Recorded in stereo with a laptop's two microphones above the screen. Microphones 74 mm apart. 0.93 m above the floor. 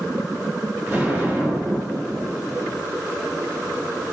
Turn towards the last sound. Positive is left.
turn(degrees=-25)  # may be behind; listen again after turning